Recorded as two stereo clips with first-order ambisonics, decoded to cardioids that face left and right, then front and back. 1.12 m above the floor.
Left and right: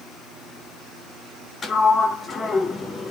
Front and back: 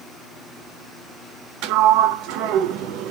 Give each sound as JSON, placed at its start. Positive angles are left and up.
{"t": 1.6, "sound": "a sliding door", "azimuth_deg": 160, "distance_m": 0.7}